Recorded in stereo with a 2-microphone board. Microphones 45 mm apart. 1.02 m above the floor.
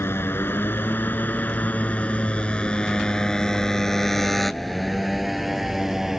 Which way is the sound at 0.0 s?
60° left (ahead or behind).